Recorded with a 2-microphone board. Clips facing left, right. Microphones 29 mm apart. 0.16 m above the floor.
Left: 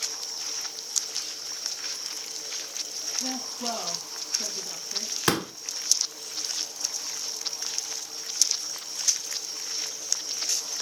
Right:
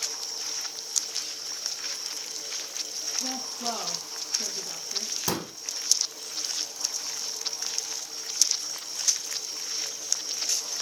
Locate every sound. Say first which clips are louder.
3.2 s a woman speaking: left 1 dB; 15° left (ahead or behind), 4.5 m
5.3 s a pop: left 7 dB; 60° left (ahead or behind), 1.0 m